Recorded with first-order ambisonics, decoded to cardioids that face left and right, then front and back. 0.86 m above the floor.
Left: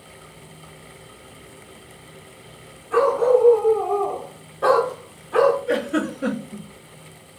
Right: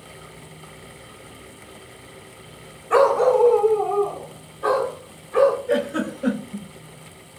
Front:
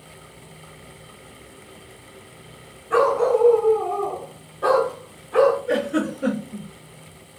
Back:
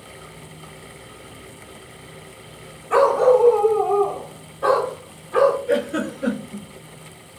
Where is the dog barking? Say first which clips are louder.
Right 1 dB, back 3 dB; 115° right, 0.9 m; by 5.6 s 85° left, 1.5 m.